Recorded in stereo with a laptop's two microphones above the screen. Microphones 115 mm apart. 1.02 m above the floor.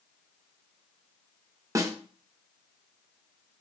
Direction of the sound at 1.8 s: 30° right (ahead or behind).